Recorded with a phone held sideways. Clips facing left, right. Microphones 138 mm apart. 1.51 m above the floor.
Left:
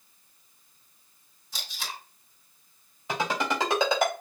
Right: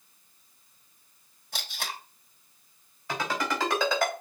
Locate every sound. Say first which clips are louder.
1.5 s tape being pulled: right 2 dB; 60° right (ahead or behind), 2 m
3.1 s a ringtone: left 2 dB; 20° left (ahead or behind), 3 m